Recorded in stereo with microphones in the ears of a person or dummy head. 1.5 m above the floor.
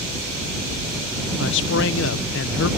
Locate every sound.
1.4 s a man speaking: 75° left (ahead or behind)